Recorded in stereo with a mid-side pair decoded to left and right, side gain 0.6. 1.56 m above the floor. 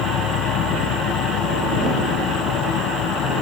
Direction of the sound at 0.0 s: 65° left.